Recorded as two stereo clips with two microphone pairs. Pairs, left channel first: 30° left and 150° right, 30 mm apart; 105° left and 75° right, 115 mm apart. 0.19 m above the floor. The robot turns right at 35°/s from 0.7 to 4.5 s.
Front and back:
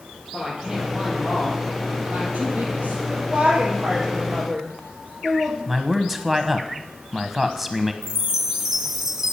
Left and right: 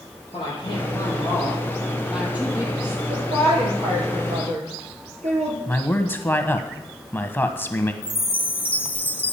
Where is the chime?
150° left, 0.7 m.